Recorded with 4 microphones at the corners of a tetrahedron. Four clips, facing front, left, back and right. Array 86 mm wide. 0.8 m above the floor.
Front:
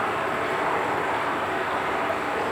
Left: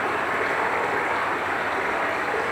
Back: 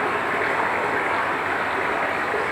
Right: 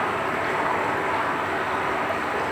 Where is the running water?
155° left, 8 m.